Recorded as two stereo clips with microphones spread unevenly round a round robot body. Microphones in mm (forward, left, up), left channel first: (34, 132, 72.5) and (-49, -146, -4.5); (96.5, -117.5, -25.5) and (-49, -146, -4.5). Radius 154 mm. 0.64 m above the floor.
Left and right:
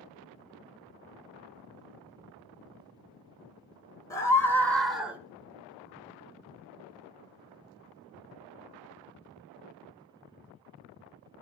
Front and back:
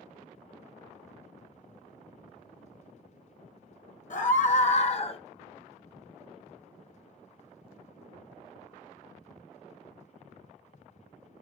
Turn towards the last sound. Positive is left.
turn(degrees=-30)